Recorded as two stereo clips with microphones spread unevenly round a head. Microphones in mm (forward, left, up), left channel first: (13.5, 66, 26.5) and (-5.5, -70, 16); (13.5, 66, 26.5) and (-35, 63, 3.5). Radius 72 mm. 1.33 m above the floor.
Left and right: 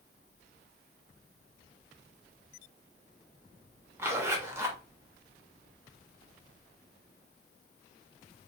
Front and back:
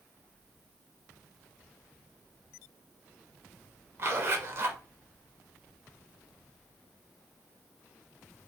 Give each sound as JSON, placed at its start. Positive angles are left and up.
{"t": 4.0, "sound": "a zipper", "azimuth_deg": -170, "distance_m": 0.6}